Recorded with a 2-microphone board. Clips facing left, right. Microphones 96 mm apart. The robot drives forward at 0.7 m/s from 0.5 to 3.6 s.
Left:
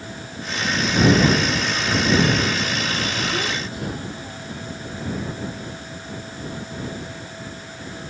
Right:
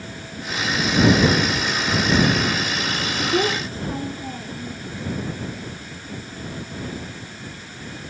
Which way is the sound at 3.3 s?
40° right (ahead or behind).